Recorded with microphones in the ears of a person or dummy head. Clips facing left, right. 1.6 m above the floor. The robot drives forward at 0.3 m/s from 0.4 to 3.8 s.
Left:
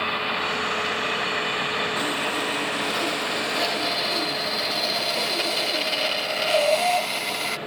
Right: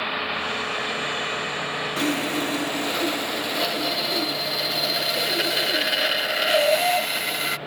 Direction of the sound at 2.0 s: 35° right (ahead or behind).